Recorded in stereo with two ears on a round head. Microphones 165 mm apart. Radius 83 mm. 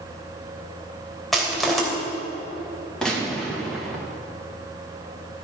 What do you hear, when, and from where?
1.3 s crushing: centre (ahead or behind), 3 m
3.0 s a gunshot: 5° left (ahead or behind), 2 m